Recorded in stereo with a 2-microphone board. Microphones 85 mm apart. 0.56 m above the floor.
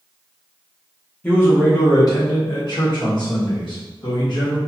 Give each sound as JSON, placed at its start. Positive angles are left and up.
{"t": 1.2, "sound": "a man speaking", "side_deg": 20, "distance_m": 1.0}